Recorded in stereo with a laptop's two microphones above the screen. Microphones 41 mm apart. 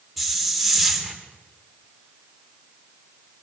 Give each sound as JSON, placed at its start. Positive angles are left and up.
{"t": 0.2, "sound": "a hiss", "side_deg": 0, "distance_m": 3.0}